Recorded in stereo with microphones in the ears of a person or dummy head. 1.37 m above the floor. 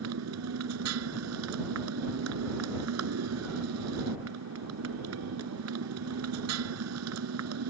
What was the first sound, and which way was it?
A motorcycle, 80° right.